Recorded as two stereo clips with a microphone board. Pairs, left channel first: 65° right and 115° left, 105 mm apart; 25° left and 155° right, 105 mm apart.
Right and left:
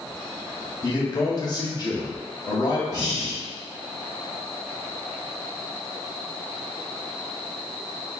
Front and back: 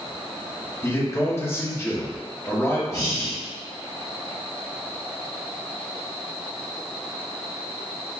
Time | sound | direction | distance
0.8 | a man speaking | 35° right | 1.1 m
2.9 | breathing | 25° right | 1.5 m